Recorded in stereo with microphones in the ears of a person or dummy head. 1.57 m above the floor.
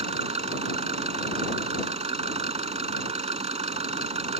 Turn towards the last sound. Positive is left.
turn(degrees=-35)  # may be behind; listen again after turning